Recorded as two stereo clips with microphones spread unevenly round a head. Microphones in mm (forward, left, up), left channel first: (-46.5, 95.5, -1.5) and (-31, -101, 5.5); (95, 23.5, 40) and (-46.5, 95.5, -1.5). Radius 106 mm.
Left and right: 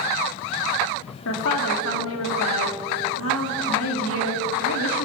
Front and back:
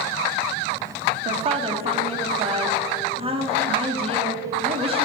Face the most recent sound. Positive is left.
turn(degrees=100)